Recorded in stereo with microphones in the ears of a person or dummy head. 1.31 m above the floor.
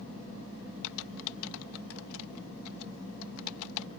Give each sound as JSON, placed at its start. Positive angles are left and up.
{"t": 0.8, "sound": "typing on a keyboard", "side_deg": 80}